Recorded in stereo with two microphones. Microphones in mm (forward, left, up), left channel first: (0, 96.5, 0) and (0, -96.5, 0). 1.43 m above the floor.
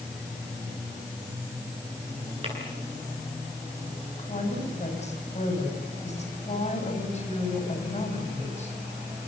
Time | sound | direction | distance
2.4 | tapping | 30° right (ahead or behind) | 9.5 m
4.2 | a woman speaking | 35° left (ahead or behind) | 8 m